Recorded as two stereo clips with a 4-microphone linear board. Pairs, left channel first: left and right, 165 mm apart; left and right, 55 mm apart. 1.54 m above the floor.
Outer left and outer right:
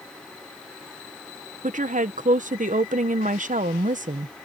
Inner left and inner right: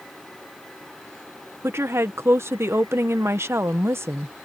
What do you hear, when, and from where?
1.6 s a woman speaking: 50° right (ahead or behind)